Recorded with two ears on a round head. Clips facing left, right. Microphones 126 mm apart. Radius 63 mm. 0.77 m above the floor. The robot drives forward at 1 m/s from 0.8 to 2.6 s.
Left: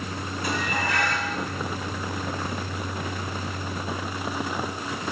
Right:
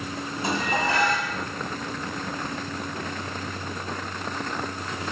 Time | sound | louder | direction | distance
0.4 | dishes clattering | right 3 dB | 25° right (ahead or behind) | 4 m